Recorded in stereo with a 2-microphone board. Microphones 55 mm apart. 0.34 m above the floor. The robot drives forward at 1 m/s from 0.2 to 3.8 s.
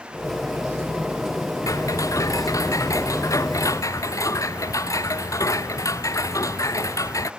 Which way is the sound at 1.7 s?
85° left.